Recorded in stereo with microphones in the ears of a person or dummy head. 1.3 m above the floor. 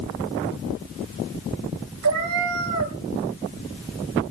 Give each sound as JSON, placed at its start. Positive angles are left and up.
{"t": 2.0, "sound": "a cat meowing", "side_deg": -75, "distance_m": 2.5}